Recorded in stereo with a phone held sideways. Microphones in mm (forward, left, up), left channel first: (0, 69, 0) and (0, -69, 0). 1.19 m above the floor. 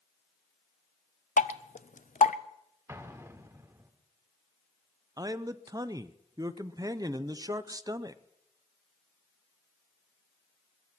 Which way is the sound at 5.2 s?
30° right (ahead or behind).